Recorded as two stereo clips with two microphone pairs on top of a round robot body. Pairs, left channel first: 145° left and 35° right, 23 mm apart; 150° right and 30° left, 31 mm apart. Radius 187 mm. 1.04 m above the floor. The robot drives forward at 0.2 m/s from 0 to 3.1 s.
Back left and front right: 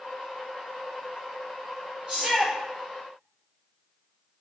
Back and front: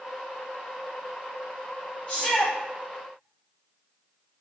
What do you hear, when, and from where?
2.1 s a shout: 100° right, 3.5 m